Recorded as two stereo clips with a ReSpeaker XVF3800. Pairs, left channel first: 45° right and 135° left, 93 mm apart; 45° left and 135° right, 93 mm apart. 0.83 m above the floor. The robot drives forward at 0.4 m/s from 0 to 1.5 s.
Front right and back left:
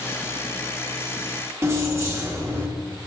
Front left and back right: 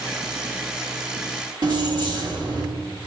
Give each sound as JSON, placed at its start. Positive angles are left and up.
{"t": 1.6, "sound": "keys jangling", "azimuth_deg": -170, "distance_m": 0.9}